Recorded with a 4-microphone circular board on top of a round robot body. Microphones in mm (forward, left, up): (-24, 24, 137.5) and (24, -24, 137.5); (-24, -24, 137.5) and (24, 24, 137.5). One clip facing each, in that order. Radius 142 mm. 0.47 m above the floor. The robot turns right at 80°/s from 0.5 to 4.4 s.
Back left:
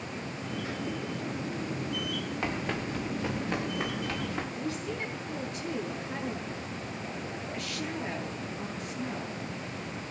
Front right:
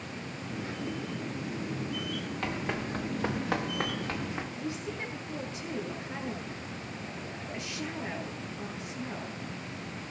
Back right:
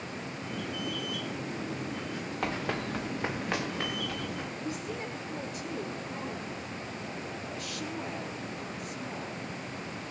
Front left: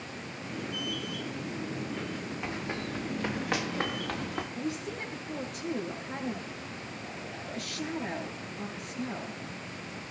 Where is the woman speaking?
25° left, 9.5 m.